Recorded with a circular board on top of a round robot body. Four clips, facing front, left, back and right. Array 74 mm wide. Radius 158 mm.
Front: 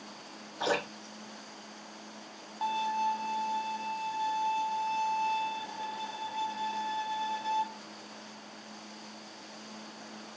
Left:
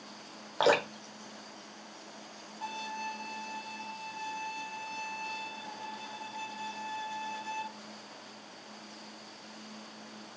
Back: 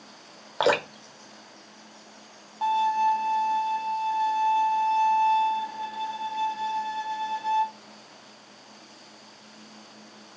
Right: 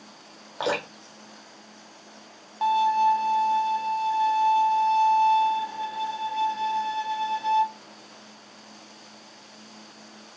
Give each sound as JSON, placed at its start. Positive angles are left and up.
{"t": 0.6, "sound": "dripping", "azimuth_deg": 165, "distance_m": 1.2}
{"t": 2.6, "sound": "a violin", "azimuth_deg": -90, "distance_m": 1.2}